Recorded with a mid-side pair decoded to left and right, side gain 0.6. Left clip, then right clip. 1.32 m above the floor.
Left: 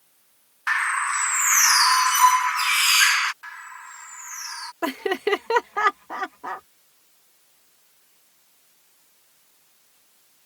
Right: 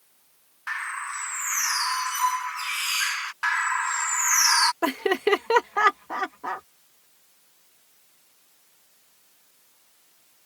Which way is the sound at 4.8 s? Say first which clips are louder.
Right 1 dB; 5° right.